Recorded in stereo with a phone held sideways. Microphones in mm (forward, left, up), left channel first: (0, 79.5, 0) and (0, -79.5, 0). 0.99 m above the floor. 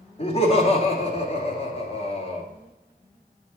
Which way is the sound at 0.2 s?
40° left (ahead or behind).